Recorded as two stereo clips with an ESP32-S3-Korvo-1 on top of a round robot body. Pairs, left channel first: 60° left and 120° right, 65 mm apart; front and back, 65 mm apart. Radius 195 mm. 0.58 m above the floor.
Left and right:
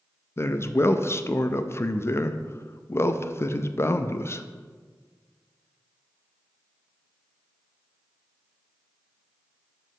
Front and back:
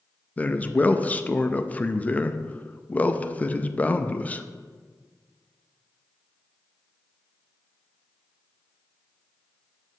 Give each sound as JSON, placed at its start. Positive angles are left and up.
{"t": 0.4, "sound": "a man speaking", "azimuth_deg": 55, "distance_m": 0.6}